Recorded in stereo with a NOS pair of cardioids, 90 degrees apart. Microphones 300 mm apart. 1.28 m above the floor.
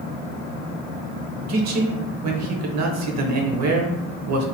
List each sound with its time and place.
1.5 s a man speaking: 65° right, 0.8 m